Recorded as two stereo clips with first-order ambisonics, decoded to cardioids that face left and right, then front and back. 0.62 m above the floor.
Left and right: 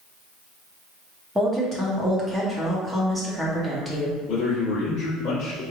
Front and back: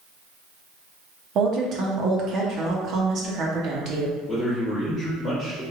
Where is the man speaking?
90° left, 1.1 m.